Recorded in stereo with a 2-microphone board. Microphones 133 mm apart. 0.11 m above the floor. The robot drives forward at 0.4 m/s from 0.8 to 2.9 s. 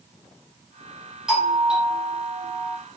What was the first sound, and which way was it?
A doorbell, 5° right (ahead or behind).